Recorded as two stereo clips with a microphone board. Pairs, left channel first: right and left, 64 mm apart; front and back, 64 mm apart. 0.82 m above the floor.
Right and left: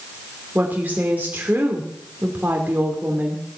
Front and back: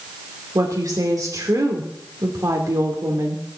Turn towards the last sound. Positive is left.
turn(degrees=155)